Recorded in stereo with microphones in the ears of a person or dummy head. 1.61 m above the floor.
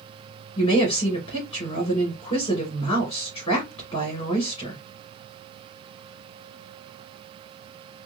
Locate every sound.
0.6 s a woman speaking: 25° left (ahead or behind), 2 m